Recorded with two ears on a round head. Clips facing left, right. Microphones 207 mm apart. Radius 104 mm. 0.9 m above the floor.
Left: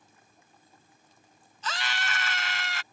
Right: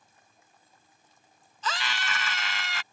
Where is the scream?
65° right (ahead or behind).